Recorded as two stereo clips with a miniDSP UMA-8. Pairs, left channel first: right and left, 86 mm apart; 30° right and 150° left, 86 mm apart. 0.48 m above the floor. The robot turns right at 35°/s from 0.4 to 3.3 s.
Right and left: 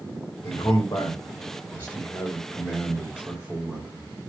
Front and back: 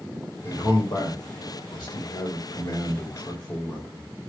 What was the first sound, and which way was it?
A man speaking, 75° right.